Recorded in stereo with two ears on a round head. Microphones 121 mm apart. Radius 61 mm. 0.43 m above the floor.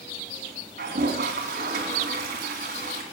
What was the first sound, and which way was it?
A toilet flushing, 85° right.